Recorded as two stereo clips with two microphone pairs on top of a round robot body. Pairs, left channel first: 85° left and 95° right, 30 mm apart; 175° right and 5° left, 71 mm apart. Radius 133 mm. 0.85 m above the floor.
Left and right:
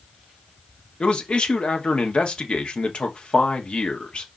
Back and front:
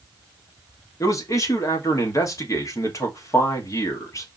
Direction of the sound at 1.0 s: 135° left.